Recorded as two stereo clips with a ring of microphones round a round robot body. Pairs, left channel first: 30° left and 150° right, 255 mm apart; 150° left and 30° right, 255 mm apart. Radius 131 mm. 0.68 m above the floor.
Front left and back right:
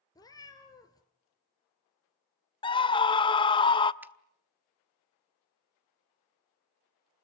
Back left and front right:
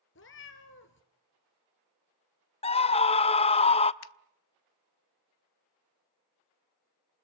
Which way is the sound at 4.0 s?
130° left.